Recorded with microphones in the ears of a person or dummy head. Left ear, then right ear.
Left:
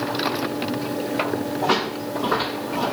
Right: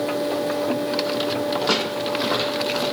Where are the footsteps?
40° right (ahead or behind), 1.7 m; by 2.8 s 30° right (ahead or behind), 2 m.